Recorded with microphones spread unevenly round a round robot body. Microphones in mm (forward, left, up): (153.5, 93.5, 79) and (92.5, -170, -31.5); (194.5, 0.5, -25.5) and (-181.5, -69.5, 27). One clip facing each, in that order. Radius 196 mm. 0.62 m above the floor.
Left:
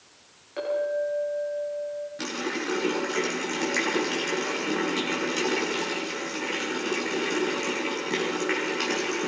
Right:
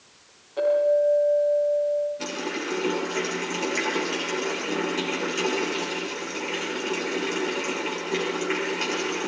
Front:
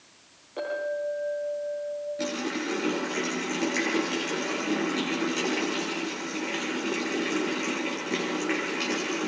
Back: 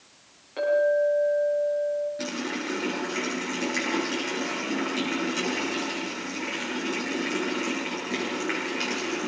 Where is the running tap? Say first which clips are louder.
Even, front 1 dB; 100° left, 7.5 m.